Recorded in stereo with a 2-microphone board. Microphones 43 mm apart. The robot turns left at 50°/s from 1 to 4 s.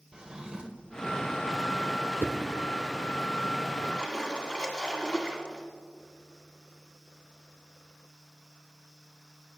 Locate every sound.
0.1 s a drawer: 20° right (ahead or behind), 0.7 m
2.2 s a whoosh: 65° right (ahead or behind), 0.6 m; by 2.3 s 60° right (ahead or behind), 0.6 m
3.8 s a splash: 30° left (ahead or behind), 1.7 m; by 5.7 s 25° left (ahead or behind), 1.7 m